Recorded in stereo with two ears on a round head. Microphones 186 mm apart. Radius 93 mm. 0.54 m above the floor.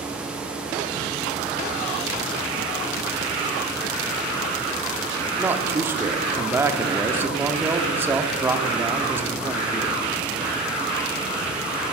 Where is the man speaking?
10° right (ahead or behind), 0.8 m.